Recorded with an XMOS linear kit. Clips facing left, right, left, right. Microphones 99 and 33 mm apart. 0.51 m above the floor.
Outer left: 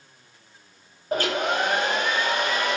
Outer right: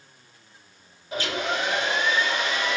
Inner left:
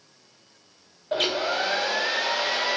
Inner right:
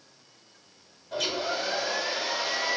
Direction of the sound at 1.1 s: 50° left (ahead or behind).